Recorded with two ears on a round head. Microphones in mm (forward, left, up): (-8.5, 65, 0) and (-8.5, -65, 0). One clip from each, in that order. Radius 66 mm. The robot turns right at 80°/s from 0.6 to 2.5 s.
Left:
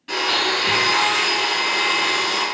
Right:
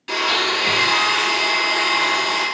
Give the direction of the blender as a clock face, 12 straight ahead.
4 o'clock.